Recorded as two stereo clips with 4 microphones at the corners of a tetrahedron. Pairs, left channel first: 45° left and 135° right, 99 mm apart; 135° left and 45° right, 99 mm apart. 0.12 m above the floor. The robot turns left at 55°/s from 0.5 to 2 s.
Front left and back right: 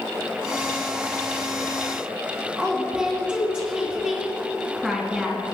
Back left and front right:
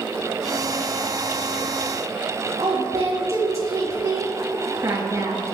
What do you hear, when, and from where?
2.6 s a woman speaking: 60° right, 2 m